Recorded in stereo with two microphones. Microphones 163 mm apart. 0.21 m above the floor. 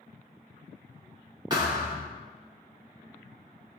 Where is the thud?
25° right (ahead or behind), 1.7 m.